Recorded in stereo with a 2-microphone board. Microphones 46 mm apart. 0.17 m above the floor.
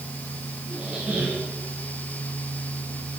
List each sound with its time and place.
0.7 s a squeak: 30° right (ahead or behind), 5 m